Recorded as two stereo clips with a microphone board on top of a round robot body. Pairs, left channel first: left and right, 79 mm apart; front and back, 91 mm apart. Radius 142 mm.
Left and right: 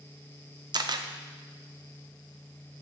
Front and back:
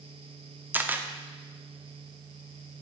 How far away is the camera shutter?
About 0.6 m.